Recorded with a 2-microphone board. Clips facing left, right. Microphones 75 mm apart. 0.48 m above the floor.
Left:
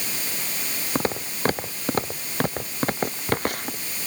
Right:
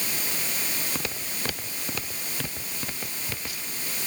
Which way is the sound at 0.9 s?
35° left (ahead or behind).